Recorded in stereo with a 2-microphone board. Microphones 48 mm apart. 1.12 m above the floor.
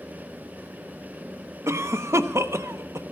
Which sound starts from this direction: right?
A cough, at 1.7 s.